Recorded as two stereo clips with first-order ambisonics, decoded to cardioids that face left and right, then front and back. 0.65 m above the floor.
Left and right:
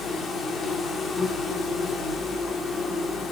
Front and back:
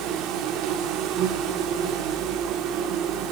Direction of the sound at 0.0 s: 160° left.